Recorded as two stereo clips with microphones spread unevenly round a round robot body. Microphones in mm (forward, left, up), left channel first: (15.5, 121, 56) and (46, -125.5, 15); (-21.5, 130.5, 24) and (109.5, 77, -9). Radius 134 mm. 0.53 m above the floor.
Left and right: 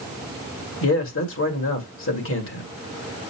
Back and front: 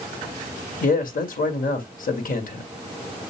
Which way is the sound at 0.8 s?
140° left.